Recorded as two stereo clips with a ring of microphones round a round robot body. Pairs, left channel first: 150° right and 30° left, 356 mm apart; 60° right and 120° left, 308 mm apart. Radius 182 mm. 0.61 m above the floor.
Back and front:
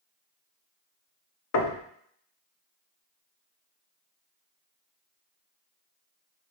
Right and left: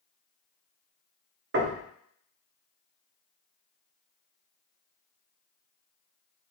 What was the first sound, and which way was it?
Knocking, 170° left.